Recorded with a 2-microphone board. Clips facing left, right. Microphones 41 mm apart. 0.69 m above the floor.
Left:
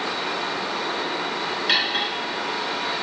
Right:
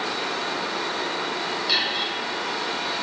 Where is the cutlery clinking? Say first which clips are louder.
Left 3 dB; 45° left (ahead or behind), 5.5 m.